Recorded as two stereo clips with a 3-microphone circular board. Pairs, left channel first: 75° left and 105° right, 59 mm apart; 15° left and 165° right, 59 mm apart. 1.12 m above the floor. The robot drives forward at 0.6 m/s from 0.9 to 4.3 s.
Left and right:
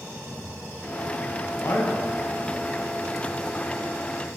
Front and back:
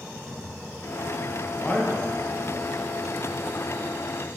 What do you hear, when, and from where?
1.6 s a man speaking: 80° left, 0.9 m; by 2.2 s 100° left, 0.9 m